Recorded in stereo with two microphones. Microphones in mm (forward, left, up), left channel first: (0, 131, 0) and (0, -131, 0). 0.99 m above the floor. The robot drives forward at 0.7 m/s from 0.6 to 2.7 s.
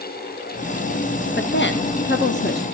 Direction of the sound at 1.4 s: 40° left (ahead or behind).